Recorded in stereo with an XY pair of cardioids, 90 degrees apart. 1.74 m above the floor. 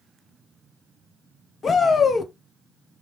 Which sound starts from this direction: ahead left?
A shout, at 1.6 s.